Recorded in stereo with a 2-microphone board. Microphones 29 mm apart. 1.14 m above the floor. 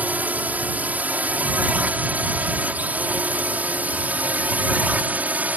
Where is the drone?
65° right (ahead or behind); by 5.6 s 60° right (ahead or behind).